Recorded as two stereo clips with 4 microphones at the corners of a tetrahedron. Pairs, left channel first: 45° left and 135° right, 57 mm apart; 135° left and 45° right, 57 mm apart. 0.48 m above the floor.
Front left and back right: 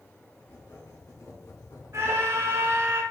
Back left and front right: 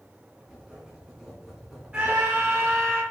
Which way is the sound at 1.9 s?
105° right.